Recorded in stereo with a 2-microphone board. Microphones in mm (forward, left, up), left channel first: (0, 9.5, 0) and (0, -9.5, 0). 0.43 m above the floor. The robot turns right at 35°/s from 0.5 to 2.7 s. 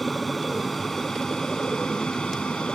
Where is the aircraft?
10° left (ahead or behind); by 2.8 s 70° left (ahead or behind).